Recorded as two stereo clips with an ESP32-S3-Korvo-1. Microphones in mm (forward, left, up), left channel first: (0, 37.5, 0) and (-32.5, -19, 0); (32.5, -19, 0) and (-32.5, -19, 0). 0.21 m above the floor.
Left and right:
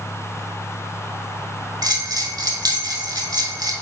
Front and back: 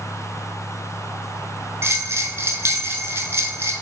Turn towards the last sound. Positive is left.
turn(degrees=-135)